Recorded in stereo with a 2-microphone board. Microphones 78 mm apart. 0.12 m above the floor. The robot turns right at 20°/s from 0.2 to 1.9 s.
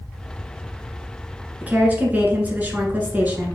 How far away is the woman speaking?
About 1.4 m.